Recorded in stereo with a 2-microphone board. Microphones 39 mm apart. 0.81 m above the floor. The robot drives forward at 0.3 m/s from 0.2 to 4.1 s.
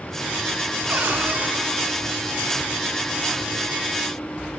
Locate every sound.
0.9 s a cupboard door: 55° right (ahead or behind), 2.5 m; by 1.5 s 60° right (ahead or behind), 2.5 m